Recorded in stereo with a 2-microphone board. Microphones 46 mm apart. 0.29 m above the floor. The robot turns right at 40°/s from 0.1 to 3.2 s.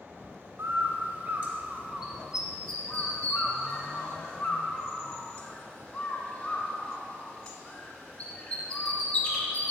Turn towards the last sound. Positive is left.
turn(degrees=25)  # may be behind; listen again after turning